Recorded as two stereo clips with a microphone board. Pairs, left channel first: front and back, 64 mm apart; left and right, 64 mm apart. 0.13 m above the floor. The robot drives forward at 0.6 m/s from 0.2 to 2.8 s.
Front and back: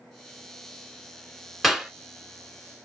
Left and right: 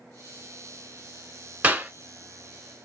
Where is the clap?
95° right, 1.0 m; by 1.9 s 115° right, 1.1 m.